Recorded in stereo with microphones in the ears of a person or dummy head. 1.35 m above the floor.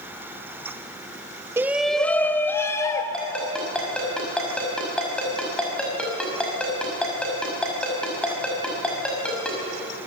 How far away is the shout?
About 1.0 m.